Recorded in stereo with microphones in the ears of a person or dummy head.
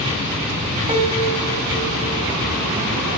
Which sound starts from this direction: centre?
A piano, at 0.9 s.